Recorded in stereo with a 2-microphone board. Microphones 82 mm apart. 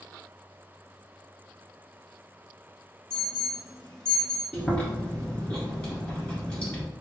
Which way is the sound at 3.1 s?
5° left (ahead or behind).